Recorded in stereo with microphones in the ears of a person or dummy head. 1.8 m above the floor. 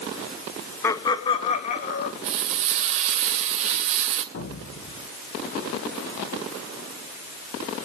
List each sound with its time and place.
0.8 s laughter: 15° left (ahead or behind), 1.6 m; by 2.1 s 50° left (ahead or behind), 2.5 m
2.2 s frying: 40° right (ahead or behind), 2 m
4.3 s an explosion: 70° left (ahead or behind), 4.5 m